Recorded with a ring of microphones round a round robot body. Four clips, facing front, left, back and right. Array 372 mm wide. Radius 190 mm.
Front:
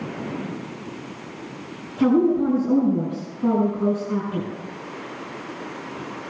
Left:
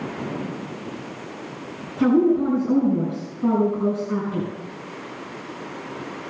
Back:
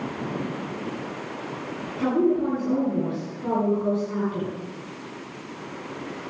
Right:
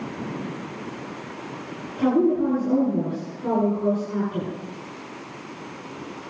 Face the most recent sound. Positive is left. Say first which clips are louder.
# left 2 dB, front 4 dB
turn(degrees=45)